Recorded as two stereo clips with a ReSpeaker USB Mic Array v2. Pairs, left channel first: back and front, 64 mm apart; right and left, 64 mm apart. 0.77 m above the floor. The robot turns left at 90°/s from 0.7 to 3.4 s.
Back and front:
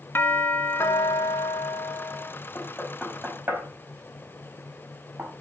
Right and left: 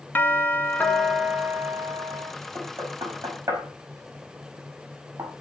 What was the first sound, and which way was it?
A doorbell, 140° right.